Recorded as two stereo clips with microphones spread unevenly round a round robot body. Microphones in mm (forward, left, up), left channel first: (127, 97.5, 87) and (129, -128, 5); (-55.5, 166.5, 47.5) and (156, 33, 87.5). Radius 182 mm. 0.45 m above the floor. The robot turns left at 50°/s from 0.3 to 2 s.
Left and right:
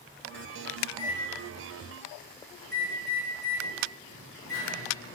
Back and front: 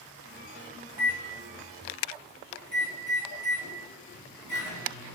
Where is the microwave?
110° left, 1.5 m; by 5.2 s 55° left, 1.5 m.